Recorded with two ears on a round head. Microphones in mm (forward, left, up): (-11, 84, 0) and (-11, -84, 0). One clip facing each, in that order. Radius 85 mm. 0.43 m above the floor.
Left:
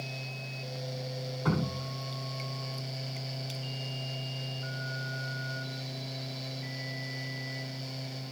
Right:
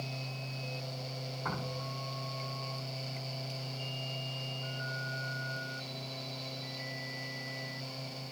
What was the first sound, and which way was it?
Dripping, 45° left (ahead or behind).